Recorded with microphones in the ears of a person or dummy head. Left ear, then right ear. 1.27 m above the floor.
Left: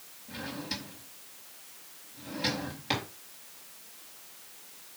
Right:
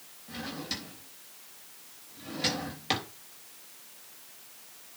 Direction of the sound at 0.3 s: 10° right (ahead or behind).